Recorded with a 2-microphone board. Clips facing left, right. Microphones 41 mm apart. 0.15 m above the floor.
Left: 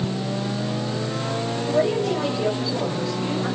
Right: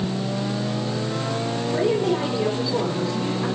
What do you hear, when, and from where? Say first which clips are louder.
1.6 s a woman speaking: even; 35° right (ahead or behind), 7.5 m